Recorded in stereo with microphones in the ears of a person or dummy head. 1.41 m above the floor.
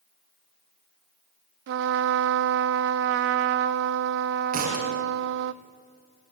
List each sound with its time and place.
1.7 s a trumpet: 60° right (ahead or behind), 0.6 m
4.5 s a thud: 40° right (ahead or behind), 3 m